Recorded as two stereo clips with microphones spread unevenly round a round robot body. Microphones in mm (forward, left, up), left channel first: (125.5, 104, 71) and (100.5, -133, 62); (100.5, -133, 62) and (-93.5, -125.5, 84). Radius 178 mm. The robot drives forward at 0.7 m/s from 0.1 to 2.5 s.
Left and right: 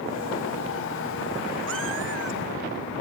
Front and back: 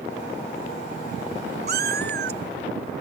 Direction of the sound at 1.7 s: 150° right.